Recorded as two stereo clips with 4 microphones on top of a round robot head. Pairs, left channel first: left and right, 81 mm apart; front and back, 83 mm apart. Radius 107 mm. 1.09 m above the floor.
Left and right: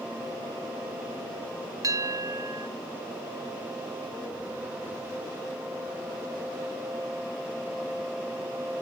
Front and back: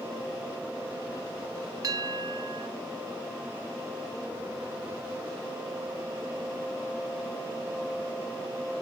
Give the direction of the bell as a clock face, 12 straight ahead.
4 o'clock.